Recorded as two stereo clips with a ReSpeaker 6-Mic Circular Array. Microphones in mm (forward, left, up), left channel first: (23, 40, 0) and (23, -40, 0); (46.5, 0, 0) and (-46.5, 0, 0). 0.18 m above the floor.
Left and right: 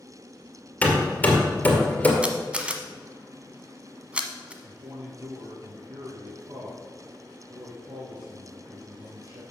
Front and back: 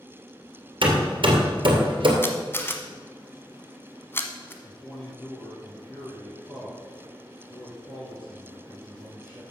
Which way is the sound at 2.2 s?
30° right.